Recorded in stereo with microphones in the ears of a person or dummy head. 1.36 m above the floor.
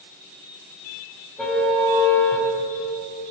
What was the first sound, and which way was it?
A car horn, centre (ahead or behind).